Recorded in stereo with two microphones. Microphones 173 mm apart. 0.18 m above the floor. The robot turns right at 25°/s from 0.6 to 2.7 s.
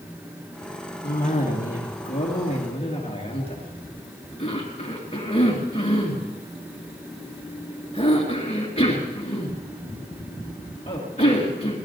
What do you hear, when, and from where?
1.0 s a cough: 60° left (ahead or behind), 3 m; by 11.8 s 40° left (ahead or behind), 3 m